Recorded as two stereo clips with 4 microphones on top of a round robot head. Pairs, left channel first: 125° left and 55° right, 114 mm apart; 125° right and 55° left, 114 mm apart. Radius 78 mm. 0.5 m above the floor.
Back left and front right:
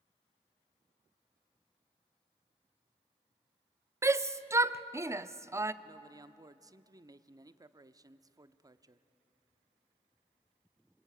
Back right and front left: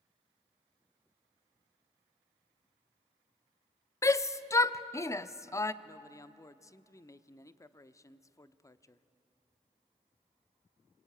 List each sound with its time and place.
4.0 s a shout: 95° right, 0.7 m
5.8 s a man speaking: 85° right, 0.8 m